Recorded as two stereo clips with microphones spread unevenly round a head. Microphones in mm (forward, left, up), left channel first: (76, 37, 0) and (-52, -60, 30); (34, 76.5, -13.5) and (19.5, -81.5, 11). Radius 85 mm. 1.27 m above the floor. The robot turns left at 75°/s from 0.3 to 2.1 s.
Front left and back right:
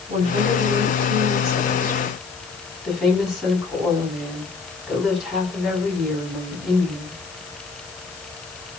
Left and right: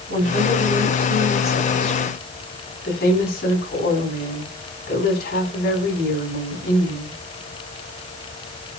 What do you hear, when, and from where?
0.1 s a woman speaking: 95° right, 8 m; by 7.2 s 130° left, 8 m